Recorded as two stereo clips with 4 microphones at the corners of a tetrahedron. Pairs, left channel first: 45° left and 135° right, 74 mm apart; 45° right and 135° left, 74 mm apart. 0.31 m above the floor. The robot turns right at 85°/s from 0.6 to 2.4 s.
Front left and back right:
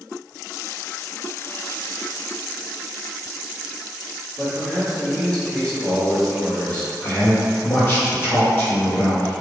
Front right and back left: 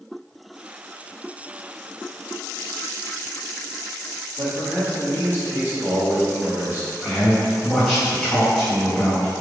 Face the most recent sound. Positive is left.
turn(degrees=35)